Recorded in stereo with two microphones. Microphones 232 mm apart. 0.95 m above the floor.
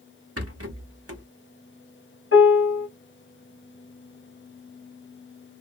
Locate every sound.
0.4 s a rattle: 80° right, 0.8 m
2.3 s a piano: 70° left (ahead or behind), 1.7 m